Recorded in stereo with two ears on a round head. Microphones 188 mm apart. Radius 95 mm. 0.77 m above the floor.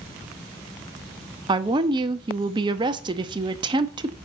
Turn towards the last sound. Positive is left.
turn(degrees=-20)  # may be behind; listen again after turning